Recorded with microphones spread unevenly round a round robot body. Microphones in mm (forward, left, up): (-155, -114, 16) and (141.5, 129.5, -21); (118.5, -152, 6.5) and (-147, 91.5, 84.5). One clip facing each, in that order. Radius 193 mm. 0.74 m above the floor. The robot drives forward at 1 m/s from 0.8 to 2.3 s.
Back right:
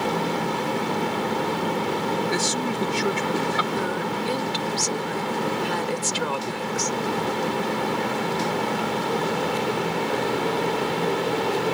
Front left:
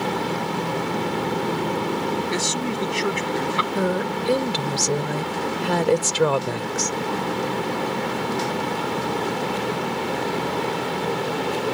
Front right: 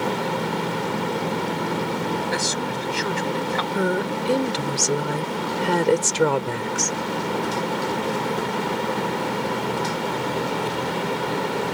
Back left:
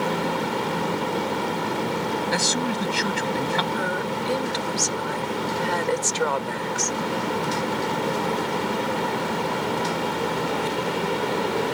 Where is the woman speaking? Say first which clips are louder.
Front left 3 dB, front right 4 dB; 5° left.